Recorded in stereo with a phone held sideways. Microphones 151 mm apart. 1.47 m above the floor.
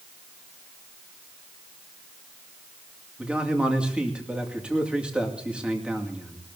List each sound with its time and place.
3.2 s a man speaking: 5° right (ahead or behind), 2.5 m